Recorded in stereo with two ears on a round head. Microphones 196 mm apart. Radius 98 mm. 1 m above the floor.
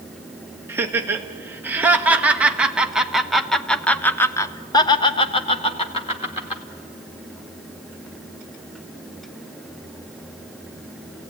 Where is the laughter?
10° right (ahead or behind), 2.5 m; by 6.6 s 25° left (ahead or behind), 1.2 m.